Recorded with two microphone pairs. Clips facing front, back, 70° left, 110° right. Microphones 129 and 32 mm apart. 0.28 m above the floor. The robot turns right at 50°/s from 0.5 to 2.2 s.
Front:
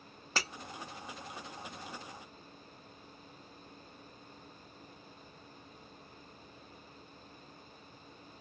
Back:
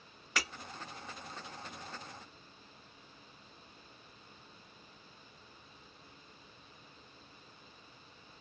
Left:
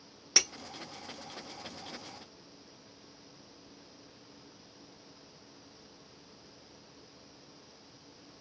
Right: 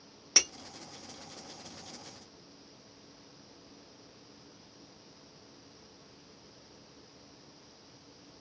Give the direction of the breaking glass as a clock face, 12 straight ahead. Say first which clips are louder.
Front 1 dB, even; 1 o'clock.